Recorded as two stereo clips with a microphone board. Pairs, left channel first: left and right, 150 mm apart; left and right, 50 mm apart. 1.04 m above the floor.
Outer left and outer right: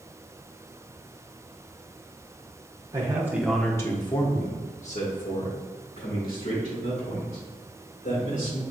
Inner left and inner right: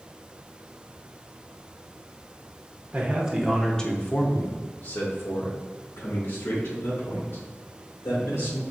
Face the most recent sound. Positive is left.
turn(degrees=75)  # may be behind; listen again after turning